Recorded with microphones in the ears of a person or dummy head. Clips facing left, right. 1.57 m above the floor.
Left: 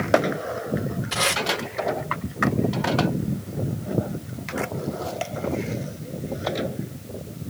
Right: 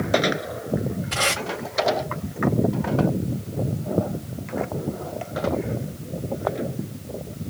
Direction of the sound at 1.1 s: 20° left (ahead or behind).